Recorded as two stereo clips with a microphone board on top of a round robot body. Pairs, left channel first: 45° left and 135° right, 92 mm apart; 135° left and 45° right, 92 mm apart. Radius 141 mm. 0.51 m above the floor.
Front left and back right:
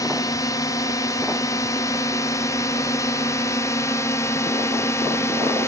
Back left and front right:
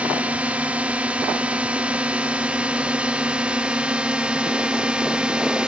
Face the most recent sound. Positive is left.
turn(degrees=25)